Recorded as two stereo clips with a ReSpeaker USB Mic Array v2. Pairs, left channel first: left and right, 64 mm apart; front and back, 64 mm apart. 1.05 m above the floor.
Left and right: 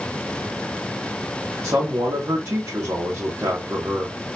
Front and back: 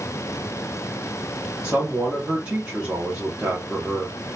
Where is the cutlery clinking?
No cutlery clinking in this recording.